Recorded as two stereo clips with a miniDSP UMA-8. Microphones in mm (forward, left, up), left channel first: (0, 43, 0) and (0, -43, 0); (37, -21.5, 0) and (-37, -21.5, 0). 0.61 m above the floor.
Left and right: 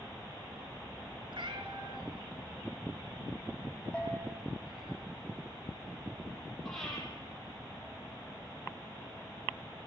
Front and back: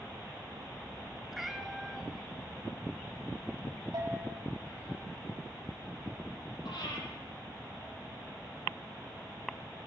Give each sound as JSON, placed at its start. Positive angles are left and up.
{"t": 1.3, "sound": "a cat meowing", "azimuth_deg": -95, "distance_m": 1.3}
{"t": 3.9, "sound": "a bell", "azimuth_deg": 165, "distance_m": 3.5}
{"t": 6.7, "sound": "breathing", "azimuth_deg": 5, "distance_m": 7.5}